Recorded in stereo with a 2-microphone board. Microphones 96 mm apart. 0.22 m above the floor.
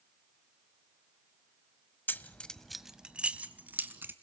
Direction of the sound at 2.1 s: 20° left (ahead or behind).